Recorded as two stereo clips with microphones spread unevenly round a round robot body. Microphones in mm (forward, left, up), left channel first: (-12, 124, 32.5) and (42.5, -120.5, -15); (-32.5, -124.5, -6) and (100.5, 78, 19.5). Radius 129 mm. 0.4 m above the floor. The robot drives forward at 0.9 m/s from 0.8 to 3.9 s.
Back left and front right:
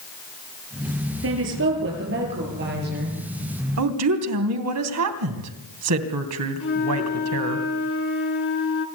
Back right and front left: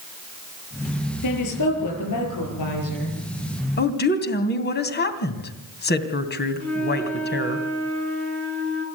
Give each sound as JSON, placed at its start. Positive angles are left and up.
{"t": 1.2, "sound": "a woman speaking", "azimuth_deg": -120, "distance_m": 6.5}
{"t": 3.8, "sound": "a woman speaking", "azimuth_deg": -80, "distance_m": 3.0}
{"t": 6.6, "sound": "a flute", "azimuth_deg": 150, "distance_m": 3.5}